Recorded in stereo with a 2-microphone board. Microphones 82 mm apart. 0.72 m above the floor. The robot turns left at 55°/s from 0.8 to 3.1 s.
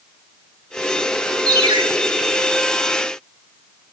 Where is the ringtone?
55° right (ahead or behind), 1.0 m; by 1.8 s 75° right (ahead or behind), 1.0 m.